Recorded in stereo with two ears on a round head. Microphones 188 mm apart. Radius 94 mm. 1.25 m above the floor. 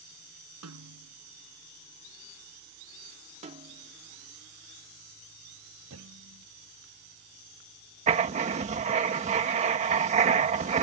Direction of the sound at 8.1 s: 35° right (ahead or behind).